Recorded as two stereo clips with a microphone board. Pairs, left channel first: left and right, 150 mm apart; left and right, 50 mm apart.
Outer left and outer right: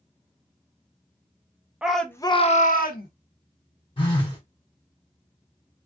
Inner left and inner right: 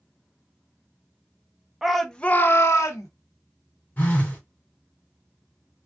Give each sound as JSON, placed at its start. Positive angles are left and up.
{"t": 1.8, "sound": "a shout", "side_deg": -5, "distance_m": 0.7}
{"t": 4.0, "sound": "a phone buzzing", "side_deg": 35, "distance_m": 1.3}